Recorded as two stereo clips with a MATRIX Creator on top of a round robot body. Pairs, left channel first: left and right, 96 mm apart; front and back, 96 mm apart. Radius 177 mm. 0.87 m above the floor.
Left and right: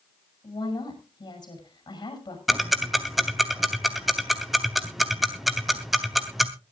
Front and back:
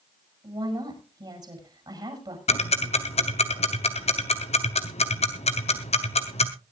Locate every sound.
0.4 s a woman speaking: 135° left, 7.5 m
2.5 s ticking: straight ahead, 0.7 m